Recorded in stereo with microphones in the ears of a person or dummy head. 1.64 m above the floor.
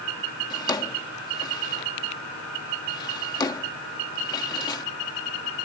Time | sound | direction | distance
0.5 | a drawer | 25° left (ahead or behind) | ?